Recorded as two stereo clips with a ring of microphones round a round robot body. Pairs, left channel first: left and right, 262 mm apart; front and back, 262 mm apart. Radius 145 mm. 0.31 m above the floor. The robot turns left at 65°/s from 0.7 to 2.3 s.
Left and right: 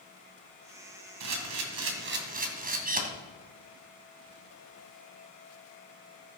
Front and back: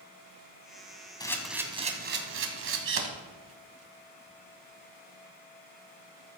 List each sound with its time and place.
1.2 s a camera shutter: 75° right, 2.5 m; by 3.0 s 145° right, 2.5 m